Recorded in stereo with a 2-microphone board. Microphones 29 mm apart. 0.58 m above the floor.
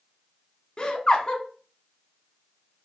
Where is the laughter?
35° left (ahead or behind), 1.0 m.